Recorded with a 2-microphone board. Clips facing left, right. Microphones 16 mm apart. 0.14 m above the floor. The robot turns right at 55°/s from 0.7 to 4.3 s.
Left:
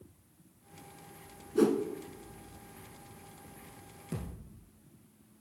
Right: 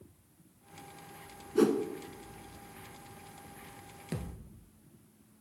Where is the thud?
40° right (ahead or behind), 1.1 m; by 4.5 s 45° right (ahead or behind), 1.1 m.